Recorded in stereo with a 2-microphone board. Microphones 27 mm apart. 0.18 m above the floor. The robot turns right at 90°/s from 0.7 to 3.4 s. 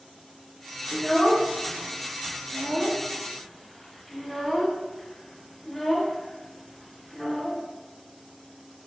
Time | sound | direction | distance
0.9 | a child speaking | 15° left (ahead or behind) | 0.8 m